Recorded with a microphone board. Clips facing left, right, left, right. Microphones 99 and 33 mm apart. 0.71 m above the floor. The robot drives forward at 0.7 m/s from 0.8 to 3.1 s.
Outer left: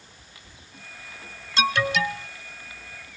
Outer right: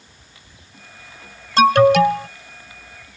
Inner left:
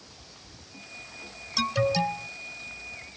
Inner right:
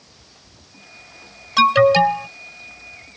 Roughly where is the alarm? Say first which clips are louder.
Outer right 13 dB, inner right 13 dB; right.